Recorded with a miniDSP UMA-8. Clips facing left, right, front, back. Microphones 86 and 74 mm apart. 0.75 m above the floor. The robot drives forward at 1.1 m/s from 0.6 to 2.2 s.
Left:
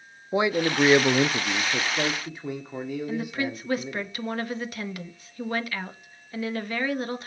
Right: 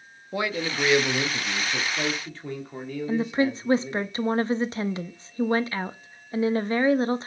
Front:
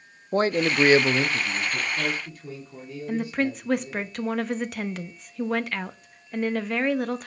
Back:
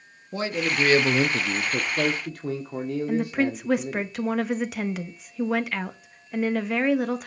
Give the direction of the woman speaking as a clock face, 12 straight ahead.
3 o'clock.